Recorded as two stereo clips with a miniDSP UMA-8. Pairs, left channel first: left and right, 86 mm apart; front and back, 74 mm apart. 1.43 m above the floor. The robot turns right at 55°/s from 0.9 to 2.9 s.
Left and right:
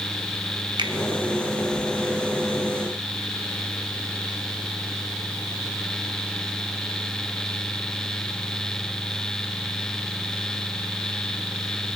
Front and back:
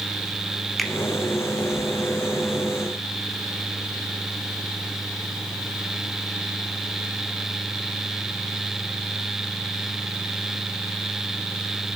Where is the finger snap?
85° right, 0.8 m.